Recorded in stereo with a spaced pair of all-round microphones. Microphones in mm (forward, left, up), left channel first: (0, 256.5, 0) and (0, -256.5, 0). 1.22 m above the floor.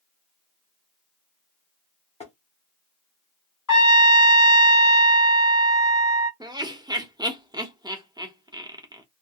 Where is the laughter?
5° right (ahead or behind), 0.9 m.